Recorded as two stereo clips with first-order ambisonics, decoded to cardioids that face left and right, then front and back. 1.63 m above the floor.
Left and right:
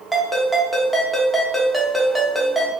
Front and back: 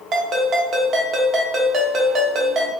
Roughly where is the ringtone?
Behind.